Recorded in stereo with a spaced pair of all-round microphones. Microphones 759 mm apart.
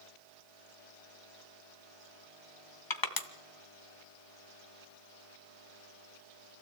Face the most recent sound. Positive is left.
turn(degrees=25)  # may be behind; listen again after turning